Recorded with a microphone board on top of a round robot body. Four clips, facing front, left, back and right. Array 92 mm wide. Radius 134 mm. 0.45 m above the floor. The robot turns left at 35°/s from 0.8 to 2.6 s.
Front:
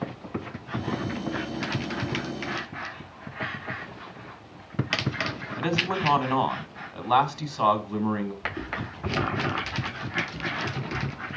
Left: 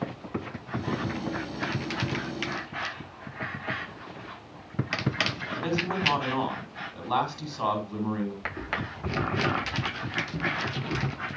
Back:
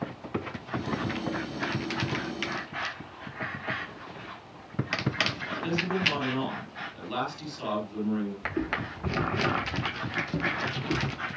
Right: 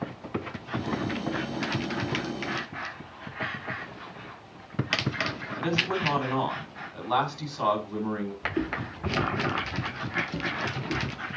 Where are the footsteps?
115° right, 0.7 m; by 11.2 s 165° right, 2.0 m.